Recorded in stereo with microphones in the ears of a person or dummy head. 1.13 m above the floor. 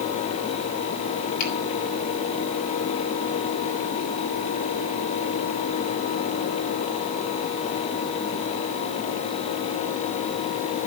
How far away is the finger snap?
About 7 m.